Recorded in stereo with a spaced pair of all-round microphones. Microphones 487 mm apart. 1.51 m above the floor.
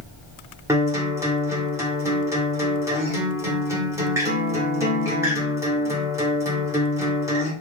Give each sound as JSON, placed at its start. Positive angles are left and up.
{"t": 0.7, "sound": "a guitar", "side_deg": -5, "distance_m": 1.2}